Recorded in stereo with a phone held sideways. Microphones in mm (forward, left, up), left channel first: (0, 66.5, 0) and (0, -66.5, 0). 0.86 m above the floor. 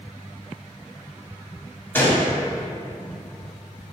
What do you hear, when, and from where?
1.9 s a gunshot: 15° left (ahead or behind), 1.3 m